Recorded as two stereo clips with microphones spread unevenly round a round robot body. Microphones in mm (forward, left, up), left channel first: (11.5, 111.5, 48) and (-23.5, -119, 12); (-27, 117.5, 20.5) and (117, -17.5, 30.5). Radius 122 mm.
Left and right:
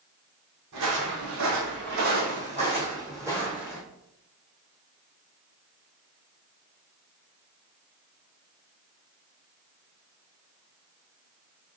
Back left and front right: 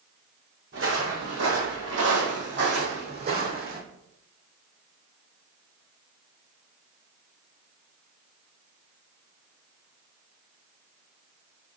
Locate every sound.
0.7 s footsteps: 80° right, 1.5 m; by 3.8 s 5° right, 1.6 m